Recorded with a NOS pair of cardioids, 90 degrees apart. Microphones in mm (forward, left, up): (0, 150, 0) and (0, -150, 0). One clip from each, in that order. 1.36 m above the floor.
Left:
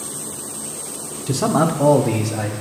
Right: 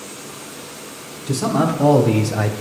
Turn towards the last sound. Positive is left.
turn(degrees=-45)